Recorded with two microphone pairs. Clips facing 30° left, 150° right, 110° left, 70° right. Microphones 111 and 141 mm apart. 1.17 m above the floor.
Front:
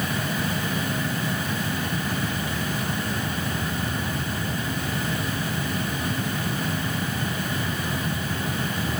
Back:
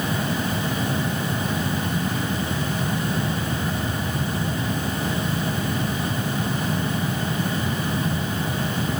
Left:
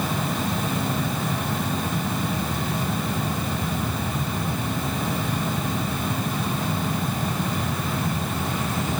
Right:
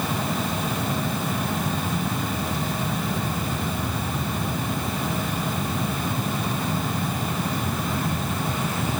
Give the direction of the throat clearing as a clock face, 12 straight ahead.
No throat clearing in this recording.